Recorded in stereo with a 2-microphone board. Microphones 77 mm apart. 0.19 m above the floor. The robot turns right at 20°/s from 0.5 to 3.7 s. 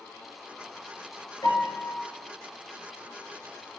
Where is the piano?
65° left (ahead or behind), 1.9 m; by 2.0 s 60° left (ahead or behind), 1.9 m.